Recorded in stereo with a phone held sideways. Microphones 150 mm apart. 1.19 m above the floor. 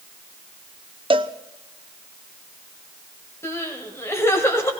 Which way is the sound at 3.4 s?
15° left (ahead or behind).